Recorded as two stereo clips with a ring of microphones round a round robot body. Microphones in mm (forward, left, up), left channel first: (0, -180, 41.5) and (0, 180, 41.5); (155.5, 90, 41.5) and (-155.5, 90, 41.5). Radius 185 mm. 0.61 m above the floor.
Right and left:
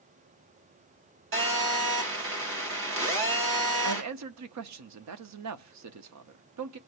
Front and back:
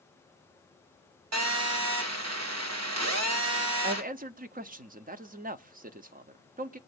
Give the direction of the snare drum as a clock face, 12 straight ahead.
I don't hear a snare drum.